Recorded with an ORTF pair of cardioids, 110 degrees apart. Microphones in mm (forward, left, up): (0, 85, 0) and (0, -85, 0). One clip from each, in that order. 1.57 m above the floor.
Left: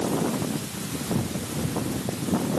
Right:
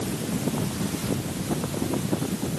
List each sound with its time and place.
Only background noise.